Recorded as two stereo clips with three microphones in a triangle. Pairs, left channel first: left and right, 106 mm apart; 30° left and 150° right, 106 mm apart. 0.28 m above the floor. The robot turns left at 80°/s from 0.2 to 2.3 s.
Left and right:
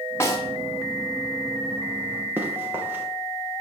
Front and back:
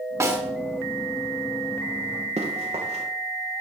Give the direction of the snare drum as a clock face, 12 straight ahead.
7 o'clock.